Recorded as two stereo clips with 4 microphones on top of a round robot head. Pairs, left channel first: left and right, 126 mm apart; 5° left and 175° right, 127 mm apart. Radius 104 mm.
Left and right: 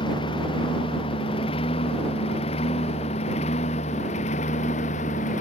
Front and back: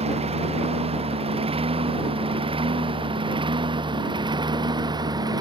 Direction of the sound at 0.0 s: 150° left.